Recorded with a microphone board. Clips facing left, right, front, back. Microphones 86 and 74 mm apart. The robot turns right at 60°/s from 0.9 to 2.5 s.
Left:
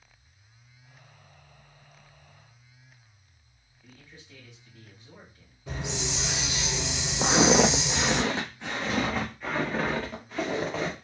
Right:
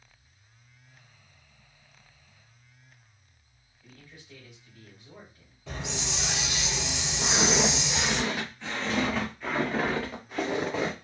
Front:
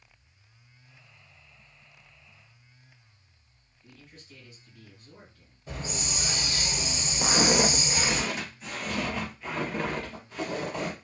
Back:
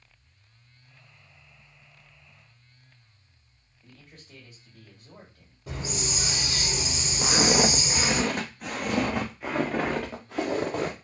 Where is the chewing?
No chewing in this recording.